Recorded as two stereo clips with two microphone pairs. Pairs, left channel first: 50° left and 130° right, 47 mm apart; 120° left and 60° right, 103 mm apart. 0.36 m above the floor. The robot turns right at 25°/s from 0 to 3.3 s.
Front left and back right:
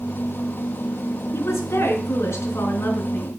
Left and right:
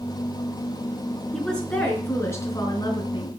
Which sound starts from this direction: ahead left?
A woman speaking, at 1.3 s.